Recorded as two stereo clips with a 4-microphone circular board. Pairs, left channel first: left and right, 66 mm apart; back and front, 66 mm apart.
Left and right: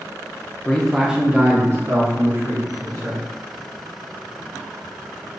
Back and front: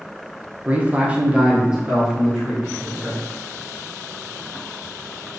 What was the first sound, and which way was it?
A man speaking, 35° left.